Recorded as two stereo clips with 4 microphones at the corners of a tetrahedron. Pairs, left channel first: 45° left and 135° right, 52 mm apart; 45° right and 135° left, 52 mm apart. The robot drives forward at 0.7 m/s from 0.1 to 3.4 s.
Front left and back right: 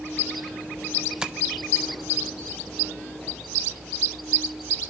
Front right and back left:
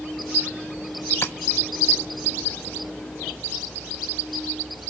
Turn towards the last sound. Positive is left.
turn(degrees=-155)